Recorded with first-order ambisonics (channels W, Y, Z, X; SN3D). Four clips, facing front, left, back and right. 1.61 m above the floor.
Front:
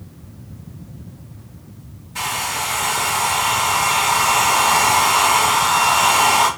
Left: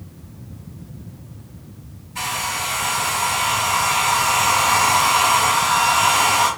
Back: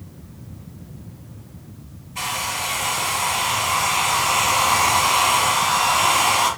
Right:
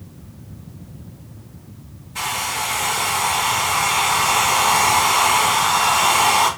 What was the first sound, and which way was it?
A hair dryer, 25° right.